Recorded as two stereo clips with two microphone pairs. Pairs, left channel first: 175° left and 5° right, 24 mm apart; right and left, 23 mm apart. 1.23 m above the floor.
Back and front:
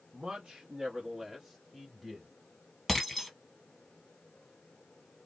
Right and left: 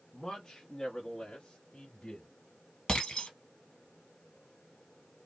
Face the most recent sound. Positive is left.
turn(degrees=-90)